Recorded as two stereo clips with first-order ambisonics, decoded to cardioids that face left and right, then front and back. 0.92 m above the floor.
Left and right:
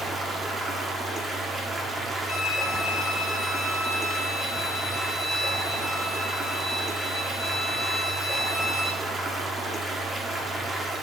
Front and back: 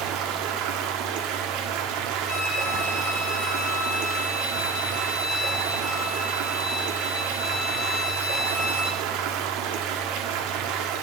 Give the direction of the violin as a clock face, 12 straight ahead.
12 o'clock.